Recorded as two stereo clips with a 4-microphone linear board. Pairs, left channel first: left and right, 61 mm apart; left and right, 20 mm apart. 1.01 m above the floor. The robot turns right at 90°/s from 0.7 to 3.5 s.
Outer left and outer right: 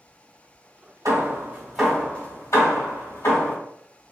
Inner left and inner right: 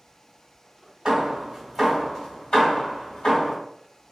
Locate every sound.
1.1 s hammering: 65° right (ahead or behind), 1.8 m; by 3.6 s 30° left (ahead or behind), 1.8 m